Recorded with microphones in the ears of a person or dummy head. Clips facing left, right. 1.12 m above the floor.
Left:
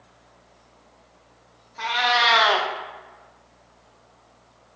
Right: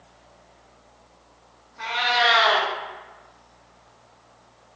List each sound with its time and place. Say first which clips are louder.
1.8 s a cat meowing: even; 60° left (ahead or behind), 0.5 m